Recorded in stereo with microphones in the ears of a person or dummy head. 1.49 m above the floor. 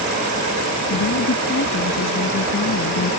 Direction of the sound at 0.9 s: 70° left (ahead or behind).